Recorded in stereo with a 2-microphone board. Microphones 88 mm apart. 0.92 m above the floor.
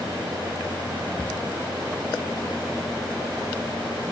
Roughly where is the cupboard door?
Centre.